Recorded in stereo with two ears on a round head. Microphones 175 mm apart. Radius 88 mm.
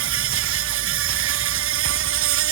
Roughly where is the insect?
Right.